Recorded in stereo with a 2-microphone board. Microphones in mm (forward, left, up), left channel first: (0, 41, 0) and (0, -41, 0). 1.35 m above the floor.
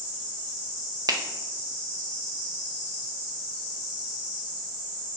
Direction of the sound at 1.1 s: 50° right (ahead or behind).